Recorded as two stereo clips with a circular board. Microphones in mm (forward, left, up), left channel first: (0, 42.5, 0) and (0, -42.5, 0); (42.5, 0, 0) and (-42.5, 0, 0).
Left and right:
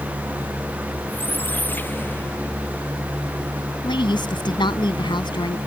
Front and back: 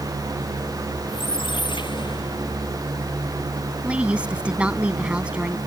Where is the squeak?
20° left.